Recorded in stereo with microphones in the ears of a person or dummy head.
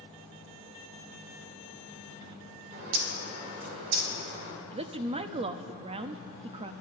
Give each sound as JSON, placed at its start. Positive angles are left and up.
{"t": 2.7, "sound": "a bird", "side_deg": -50, "distance_m": 3.0}
{"t": 4.7, "sound": "a woman speaking", "side_deg": -35, "distance_m": 0.5}